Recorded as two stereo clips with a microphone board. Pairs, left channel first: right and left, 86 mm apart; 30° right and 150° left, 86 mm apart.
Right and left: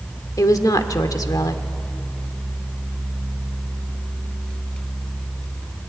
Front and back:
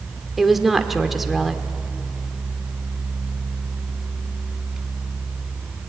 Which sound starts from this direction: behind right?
A woman speaking, at 0.4 s.